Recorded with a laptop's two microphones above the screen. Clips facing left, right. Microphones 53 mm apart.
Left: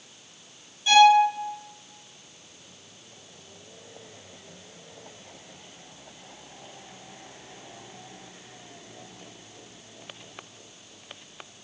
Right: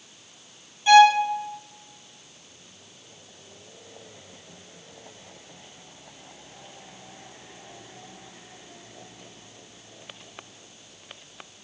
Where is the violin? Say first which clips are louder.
Right 2 dB; 25° right (ahead or behind), 0.8 m.